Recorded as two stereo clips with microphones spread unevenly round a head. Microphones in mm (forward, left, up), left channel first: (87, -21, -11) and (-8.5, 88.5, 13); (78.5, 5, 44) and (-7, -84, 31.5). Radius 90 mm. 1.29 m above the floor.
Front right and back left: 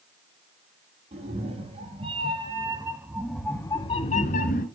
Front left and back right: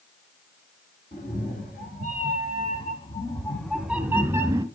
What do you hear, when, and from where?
1.1 s a cat meowing: 95° left, 4 m; by 4.7 s 70° right, 1.9 m